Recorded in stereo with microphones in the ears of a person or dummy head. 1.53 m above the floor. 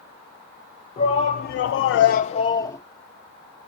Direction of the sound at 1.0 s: 35° left (ahead or behind).